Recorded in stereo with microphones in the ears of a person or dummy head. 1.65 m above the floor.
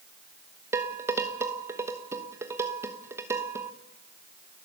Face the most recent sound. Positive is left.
turn(degrees=-15)  # may be behind; listen again after turning